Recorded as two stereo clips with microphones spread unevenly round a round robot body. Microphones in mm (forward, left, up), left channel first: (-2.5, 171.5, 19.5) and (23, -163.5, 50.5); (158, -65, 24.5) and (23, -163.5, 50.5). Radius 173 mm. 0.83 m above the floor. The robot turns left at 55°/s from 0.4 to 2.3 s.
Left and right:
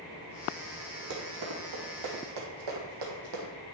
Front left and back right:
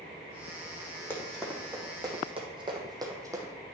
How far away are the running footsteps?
About 2.5 m.